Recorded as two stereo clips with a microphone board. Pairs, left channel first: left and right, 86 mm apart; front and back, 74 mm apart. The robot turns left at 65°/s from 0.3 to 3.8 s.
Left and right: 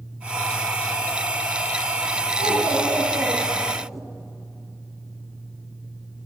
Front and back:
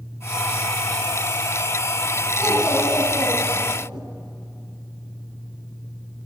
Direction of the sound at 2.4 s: 85° right.